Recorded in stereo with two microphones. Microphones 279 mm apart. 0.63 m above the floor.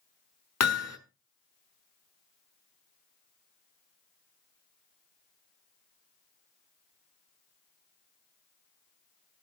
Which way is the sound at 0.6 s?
60° left (ahead or behind).